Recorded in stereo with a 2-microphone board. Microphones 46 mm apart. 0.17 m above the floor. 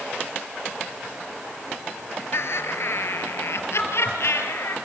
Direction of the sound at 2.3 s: 65° left (ahead or behind).